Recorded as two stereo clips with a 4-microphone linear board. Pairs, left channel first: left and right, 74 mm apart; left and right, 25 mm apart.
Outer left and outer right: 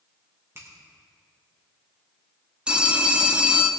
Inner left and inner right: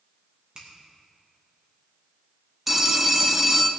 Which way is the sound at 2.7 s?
15° right (ahead or behind).